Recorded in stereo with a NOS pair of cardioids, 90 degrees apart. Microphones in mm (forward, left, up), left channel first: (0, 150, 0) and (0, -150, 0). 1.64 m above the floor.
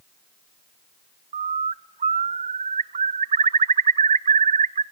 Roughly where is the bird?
Ahead right.